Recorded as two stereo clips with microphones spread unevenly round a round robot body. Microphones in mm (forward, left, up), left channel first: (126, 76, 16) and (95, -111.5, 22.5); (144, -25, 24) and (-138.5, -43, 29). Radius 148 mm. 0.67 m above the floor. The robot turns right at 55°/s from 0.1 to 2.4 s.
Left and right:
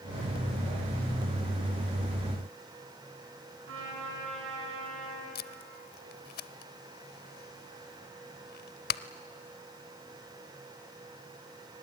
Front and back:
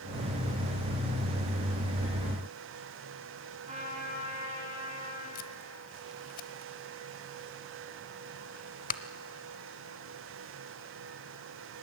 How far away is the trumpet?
About 7 m.